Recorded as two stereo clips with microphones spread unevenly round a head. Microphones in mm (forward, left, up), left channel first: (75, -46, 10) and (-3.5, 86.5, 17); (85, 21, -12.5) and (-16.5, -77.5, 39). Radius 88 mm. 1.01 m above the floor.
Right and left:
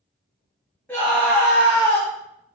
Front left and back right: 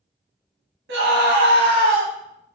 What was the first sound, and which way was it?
A scream, 140° right.